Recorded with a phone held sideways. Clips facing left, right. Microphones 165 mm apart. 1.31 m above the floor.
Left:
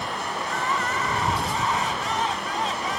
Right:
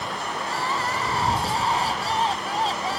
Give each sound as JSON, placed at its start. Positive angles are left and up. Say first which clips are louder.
{"t": 0.4, "sound": "crying", "louder": "even", "side_deg": -35}